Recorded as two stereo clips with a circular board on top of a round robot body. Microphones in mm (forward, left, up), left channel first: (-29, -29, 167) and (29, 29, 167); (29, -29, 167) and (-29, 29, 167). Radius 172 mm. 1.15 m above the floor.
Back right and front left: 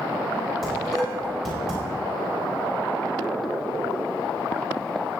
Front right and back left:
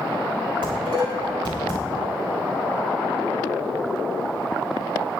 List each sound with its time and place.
0.6 s dishes clattering: 140° left, 6 m